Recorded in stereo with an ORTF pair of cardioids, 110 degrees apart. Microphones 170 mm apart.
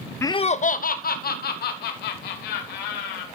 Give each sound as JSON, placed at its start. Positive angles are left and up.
{"t": 0.2, "sound": "laughter", "azimuth_deg": 15, "distance_m": 0.5}